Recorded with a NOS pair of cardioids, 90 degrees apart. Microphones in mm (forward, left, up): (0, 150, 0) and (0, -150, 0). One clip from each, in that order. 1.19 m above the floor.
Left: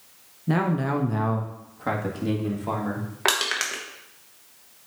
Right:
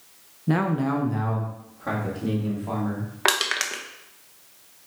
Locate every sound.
0.5 s a man speaking: 15° right, 0.6 m; by 3.1 s 40° left, 3 m
3.2 s crushing: 20° right, 1.0 m